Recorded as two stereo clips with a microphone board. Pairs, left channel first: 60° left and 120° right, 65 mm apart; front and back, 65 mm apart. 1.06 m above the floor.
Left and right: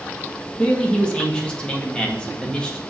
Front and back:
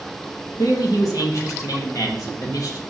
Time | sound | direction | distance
0.6 | a man speaking | 15° right | 1.9 m